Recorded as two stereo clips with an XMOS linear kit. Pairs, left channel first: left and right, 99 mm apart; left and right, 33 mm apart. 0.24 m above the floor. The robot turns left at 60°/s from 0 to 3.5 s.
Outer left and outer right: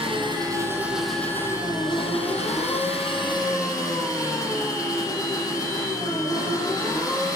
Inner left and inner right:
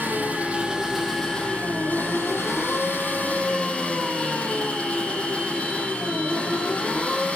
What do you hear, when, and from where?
0.0 s an engine running: 115° right, 6.5 m; by 7.4 s 35° left, 6.5 m